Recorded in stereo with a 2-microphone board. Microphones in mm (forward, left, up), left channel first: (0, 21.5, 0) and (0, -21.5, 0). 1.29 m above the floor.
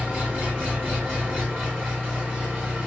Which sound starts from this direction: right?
An engine running, at 0.0 s.